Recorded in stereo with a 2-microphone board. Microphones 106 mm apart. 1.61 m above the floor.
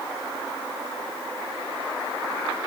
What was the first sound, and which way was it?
Only background noise.